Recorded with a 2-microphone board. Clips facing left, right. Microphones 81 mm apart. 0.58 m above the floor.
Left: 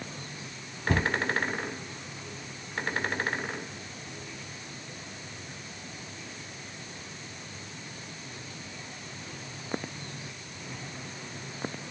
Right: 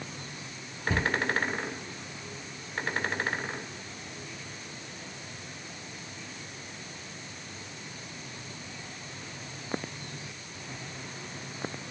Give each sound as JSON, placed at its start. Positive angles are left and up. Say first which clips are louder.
{"t": 0.9, "sound": "a cupboard door", "louder": "left 2 dB", "side_deg": 60, "distance_m": 1.0}